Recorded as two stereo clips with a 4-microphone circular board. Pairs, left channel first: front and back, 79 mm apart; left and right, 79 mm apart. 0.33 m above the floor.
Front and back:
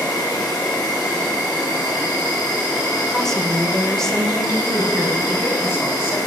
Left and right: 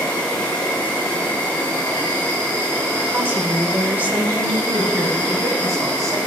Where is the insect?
20° left, 4 m.